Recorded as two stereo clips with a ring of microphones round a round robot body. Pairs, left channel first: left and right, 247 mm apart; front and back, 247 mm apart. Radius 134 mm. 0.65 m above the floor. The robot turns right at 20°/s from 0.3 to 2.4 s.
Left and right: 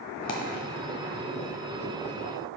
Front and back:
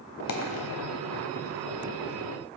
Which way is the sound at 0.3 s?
30° left.